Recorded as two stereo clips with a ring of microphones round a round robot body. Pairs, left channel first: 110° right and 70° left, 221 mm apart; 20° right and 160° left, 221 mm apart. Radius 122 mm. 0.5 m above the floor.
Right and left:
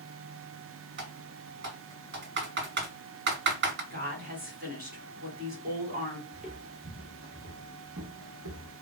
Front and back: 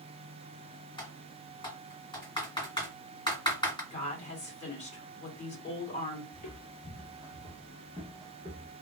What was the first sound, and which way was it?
Typing on a keyboard, 40° left.